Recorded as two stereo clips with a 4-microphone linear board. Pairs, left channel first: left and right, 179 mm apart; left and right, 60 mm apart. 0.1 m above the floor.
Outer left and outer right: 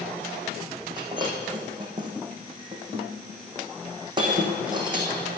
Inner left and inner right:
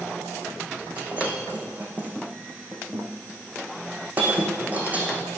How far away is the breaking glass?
About 3.5 m.